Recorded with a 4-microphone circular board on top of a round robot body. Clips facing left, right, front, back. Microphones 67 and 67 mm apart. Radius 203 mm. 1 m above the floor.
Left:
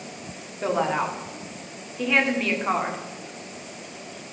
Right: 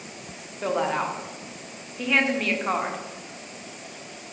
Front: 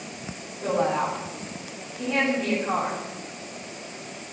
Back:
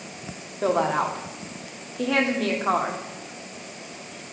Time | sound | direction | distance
0.6 | a woman speaking | straight behind | 3 m